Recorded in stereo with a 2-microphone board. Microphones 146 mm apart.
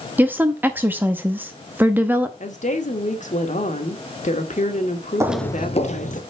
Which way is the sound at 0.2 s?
15° right (ahead or behind).